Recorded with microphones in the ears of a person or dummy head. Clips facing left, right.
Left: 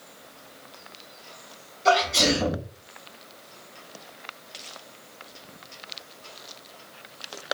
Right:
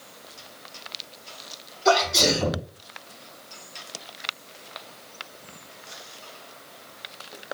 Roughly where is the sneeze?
Left.